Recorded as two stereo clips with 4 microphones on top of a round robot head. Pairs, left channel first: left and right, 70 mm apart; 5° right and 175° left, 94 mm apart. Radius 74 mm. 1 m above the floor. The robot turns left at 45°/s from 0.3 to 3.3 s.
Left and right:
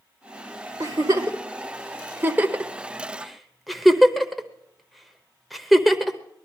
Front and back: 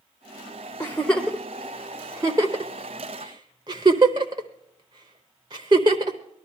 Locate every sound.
0.8 s a giggle: 70° right, 0.8 m; by 6.2 s straight behind, 0.8 m